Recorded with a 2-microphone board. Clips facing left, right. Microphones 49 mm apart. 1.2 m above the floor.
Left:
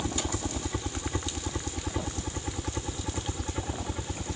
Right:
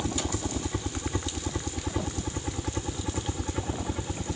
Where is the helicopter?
5° left (ahead or behind); by 4.4 s 5° right (ahead or behind).